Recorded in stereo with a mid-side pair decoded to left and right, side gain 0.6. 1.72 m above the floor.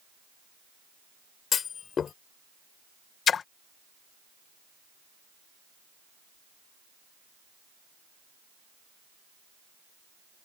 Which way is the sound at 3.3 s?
40° left.